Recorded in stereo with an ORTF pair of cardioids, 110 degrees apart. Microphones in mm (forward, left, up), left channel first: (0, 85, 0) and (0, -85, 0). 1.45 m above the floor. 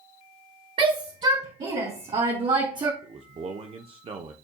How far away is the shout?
About 3.5 m.